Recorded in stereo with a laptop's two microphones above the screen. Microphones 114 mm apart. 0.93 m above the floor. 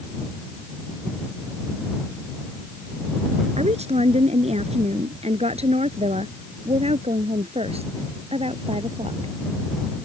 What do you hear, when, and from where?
3.6 s a woman speaking: 70° right (ahead or behind); by 9.3 s 60° right (ahead or behind)